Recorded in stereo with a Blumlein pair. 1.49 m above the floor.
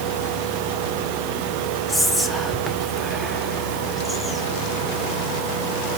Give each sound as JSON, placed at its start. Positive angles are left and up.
{"t": 1.9, "sound": "whispering", "azimuth_deg": 10, "distance_m": 1.0}